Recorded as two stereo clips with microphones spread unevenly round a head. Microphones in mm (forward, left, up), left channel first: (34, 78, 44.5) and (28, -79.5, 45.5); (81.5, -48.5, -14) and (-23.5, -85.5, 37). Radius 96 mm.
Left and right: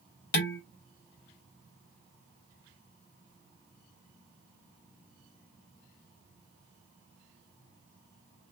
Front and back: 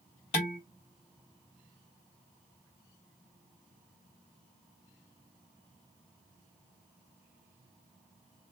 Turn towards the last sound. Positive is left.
turn(degrees=65)